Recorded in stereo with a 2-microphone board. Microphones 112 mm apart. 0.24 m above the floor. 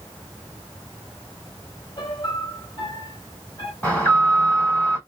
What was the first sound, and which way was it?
A piano, 45° left (ahead or behind).